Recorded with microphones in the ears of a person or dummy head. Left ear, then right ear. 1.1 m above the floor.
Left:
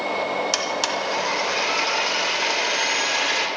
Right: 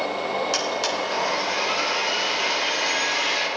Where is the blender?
15° left (ahead or behind), 0.8 m.